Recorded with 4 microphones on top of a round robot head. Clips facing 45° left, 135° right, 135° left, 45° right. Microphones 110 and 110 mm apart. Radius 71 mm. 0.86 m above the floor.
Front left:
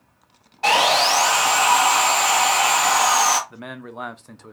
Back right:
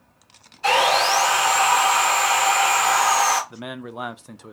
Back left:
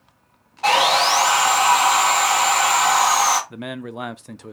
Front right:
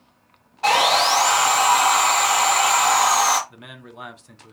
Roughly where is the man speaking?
Behind left.